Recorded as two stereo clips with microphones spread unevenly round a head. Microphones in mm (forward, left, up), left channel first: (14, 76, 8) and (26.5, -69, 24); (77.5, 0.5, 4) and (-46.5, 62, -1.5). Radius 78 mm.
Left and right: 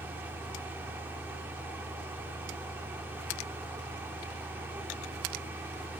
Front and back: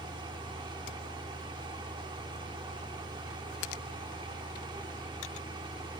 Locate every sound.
0.0 s a fan: 155° right, 0.7 m